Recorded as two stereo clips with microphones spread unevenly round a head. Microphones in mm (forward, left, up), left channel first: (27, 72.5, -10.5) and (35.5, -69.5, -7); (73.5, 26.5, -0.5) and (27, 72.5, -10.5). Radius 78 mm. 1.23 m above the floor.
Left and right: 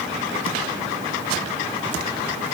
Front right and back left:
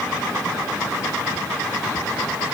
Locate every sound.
Only background noise.